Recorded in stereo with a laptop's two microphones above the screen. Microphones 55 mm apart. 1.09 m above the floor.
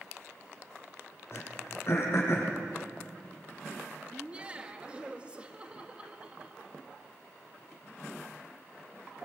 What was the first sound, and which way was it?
Throat clearing, 45° left (ahead or behind).